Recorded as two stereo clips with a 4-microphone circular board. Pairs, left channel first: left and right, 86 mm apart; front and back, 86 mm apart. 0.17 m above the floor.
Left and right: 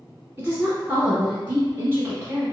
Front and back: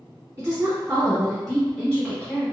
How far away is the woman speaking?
About 1.4 m.